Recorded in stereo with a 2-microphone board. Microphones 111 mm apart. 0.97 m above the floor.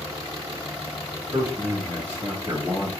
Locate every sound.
1.3 s a man speaking: 25° right (ahead or behind), 1.6 m